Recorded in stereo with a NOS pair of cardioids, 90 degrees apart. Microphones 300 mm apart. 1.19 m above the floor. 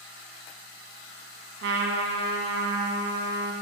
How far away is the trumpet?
About 1.1 m.